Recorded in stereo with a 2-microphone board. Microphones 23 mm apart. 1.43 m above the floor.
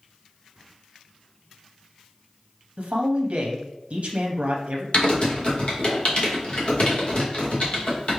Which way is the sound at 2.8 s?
65° right (ahead or behind).